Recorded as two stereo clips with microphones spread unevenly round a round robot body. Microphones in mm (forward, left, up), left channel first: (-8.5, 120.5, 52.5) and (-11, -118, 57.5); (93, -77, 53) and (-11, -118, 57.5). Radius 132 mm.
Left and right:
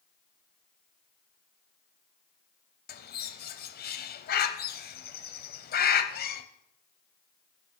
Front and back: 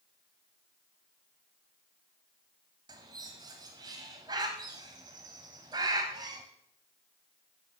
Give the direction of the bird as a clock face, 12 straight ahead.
7 o'clock.